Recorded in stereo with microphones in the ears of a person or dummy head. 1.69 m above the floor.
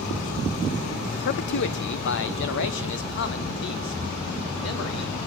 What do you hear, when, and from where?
1.1 s a man speaking: 60° left (ahead or behind), 0.8 m; by 5.2 s 75° left (ahead or behind), 4.5 m